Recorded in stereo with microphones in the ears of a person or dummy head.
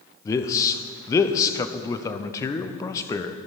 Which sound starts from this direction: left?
A man speaking, at 0.2 s.